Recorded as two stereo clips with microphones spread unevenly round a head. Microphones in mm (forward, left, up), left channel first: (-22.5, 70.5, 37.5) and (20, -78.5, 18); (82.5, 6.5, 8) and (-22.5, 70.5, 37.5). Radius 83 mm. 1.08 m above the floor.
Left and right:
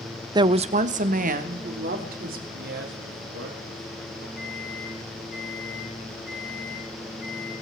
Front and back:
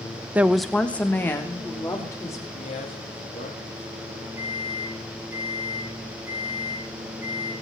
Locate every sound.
0.3 s a woman speaking: 125° right, 0.6 m; by 2.4 s 100° right, 3 m
2.5 s a man speaking: 70° right, 2.0 m
4.4 s a microwave: 75° left, 7.5 m